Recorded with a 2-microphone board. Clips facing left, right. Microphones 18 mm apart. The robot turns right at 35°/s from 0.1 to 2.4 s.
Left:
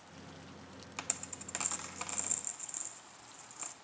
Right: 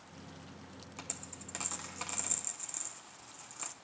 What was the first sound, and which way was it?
A dropped coin, 35° left (ahead or behind).